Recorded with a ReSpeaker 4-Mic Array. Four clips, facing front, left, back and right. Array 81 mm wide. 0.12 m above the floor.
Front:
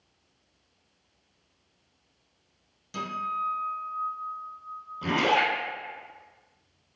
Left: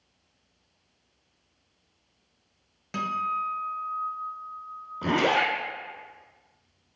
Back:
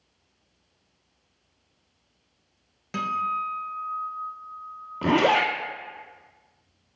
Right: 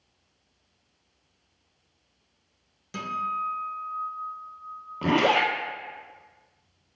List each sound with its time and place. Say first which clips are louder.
2.9 s a guitar: left 1 dB, back 4 dB; 145° left, 0.8 m
5.0 s a zipper: right 2 dB, back 4 dB; 140° right, 1.0 m